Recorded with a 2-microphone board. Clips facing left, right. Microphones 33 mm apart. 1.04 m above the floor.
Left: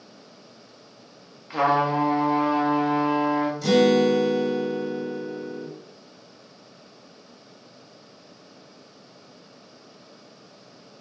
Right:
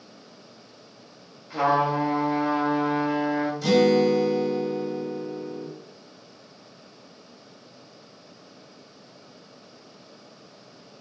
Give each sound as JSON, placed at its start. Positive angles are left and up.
{"t": 1.5, "sound": "a trumpet", "side_deg": 40, "distance_m": 1.1}
{"t": 3.6, "sound": "a guitar", "side_deg": -10, "distance_m": 1.4}